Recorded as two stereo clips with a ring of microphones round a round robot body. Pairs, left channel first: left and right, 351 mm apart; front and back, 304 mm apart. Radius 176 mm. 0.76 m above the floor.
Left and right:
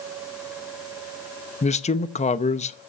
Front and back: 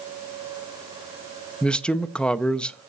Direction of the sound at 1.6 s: 80° left.